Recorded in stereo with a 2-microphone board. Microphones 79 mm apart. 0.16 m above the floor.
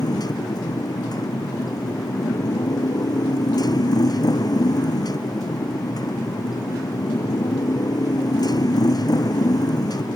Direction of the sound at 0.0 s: 55° left (ahead or behind).